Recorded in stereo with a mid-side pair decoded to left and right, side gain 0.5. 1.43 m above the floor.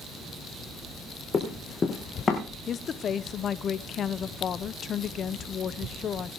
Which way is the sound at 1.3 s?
40° left.